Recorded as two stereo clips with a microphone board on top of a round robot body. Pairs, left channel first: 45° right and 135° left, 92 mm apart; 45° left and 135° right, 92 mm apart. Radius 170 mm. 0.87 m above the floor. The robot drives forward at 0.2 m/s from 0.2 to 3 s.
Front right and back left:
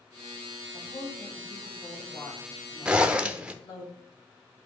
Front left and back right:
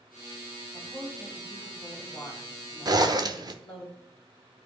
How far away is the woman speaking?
About 3.5 m.